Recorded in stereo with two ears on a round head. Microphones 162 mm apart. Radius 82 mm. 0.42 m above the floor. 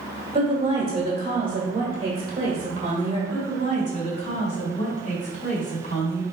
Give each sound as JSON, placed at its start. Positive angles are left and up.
{"t": 0.3, "sound": "a woman speaking", "side_deg": -25, "distance_m": 1.5}
{"t": 3.3, "sound": "a woman speaking", "side_deg": 35, "distance_m": 1.7}